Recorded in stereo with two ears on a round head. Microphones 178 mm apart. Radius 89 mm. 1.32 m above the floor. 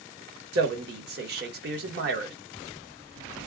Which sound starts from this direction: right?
A man speaking, at 0.5 s.